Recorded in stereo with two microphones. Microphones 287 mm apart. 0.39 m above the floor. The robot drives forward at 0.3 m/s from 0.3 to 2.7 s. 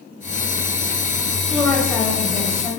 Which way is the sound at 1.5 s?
5° left (ahead or behind).